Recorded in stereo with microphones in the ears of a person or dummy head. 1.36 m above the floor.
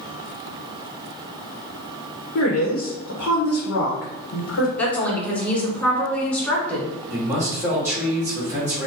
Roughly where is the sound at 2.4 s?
Left.